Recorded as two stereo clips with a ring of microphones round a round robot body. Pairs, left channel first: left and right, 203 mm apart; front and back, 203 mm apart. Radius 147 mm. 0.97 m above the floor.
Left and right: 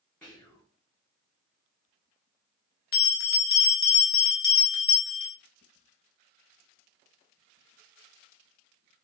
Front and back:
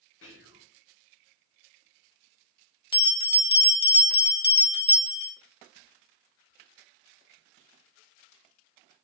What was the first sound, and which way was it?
Whispering, 5° left.